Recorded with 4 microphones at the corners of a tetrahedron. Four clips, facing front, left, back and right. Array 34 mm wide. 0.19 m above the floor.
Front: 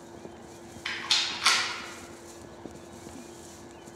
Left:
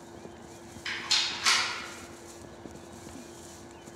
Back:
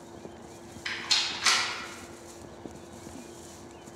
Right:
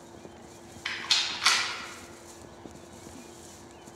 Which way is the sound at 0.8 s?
55° right.